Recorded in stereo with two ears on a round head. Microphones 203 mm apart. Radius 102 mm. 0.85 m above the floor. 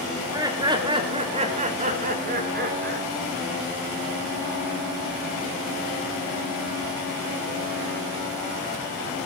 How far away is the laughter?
About 3.5 m.